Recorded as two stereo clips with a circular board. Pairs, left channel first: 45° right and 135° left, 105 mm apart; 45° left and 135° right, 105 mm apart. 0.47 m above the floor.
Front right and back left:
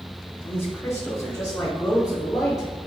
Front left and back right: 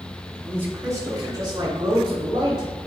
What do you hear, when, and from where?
0.4 s a man speaking: 80° right, 0.8 m; by 2.7 s 100° right, 2 m